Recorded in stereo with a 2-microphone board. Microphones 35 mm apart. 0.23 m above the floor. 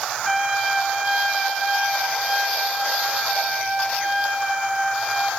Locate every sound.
0.2 s a trumpet: 5° left (ahead or behind), 3.5 m